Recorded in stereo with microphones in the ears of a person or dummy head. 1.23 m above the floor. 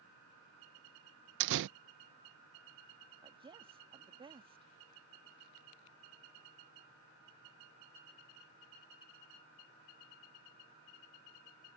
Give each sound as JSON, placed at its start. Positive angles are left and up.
{"t": 1.4, "sound": "a door slam", "side_deg": -65}
{"t": 3.2, "sound": "a woman speaking", "side_deg": -25}